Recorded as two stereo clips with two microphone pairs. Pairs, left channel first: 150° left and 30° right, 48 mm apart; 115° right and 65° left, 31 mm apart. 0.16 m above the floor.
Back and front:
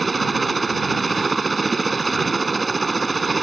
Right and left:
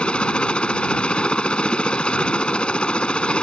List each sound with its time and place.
0.0 s a helicopter: 120° right